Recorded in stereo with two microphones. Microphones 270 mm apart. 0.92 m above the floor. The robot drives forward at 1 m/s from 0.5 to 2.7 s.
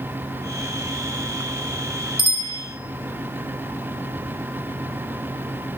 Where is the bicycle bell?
85° left, 4 m; by 2.6 s 75° left (ahead or behind), 4 m.